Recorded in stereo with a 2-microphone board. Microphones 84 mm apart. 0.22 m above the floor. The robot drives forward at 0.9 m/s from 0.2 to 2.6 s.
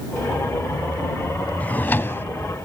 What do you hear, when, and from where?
1.6 s a drawer: 20° left (ahead or behind); by 2.2 s 25° left (ahead or behind)